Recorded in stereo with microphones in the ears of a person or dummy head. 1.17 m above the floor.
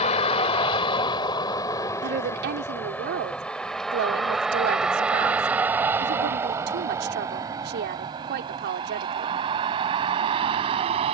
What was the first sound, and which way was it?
A vehicle, 30° left (ahead or behind).